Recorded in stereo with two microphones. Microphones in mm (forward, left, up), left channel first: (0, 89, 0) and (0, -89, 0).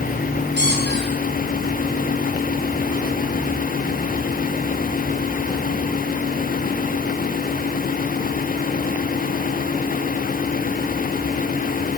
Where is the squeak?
80° right, 8.5 m.